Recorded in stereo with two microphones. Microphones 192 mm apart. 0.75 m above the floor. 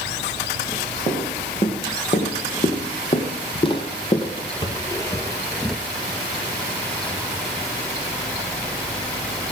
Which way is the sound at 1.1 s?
35° left (ahead or behind).